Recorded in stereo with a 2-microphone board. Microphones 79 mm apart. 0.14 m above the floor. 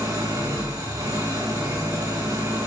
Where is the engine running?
55° right (ahead or behind), 8 m.